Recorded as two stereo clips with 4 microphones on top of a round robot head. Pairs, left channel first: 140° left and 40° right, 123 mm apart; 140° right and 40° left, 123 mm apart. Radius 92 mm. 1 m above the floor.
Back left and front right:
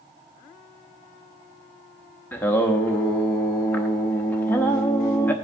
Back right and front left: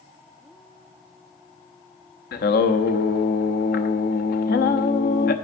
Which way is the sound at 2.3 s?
145° right.